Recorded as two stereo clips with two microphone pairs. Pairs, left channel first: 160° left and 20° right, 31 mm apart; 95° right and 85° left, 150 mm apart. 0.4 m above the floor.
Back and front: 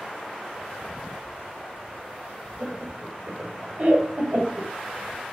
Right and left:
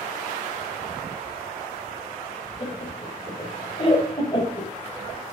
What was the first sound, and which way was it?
Laughter, 45° right.